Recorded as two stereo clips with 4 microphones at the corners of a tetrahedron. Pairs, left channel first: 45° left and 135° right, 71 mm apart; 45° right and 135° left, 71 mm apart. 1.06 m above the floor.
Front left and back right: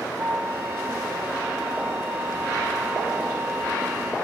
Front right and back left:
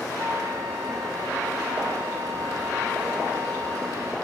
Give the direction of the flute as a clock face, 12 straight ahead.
6 o'clock.